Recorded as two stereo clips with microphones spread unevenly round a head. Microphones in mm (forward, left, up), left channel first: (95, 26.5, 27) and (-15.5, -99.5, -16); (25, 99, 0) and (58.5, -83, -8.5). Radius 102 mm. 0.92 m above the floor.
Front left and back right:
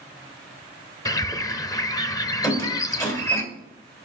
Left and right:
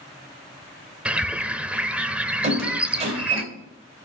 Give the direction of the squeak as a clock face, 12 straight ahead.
1 o'clock.